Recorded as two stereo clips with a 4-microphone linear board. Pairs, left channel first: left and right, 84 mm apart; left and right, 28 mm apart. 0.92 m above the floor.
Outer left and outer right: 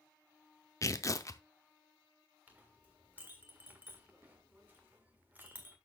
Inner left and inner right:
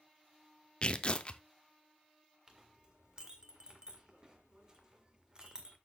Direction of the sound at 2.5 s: 20° right (ahead or behind).